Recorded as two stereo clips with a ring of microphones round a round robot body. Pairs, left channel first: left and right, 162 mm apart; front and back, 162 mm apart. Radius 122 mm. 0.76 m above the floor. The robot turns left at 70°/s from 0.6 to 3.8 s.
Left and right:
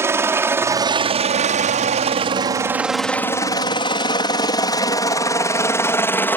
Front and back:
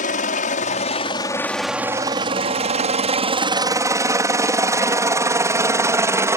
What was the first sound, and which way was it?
A helicopter, 20° right.